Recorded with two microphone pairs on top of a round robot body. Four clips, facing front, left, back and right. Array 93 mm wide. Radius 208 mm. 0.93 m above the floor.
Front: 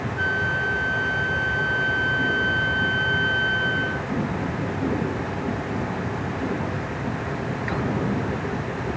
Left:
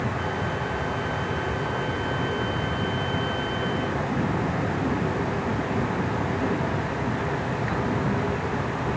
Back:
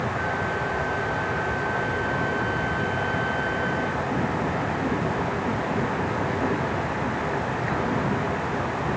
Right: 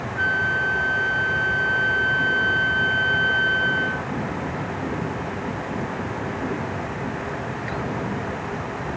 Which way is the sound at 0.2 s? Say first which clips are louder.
Right 5 dB, front 2 dB; 70° right.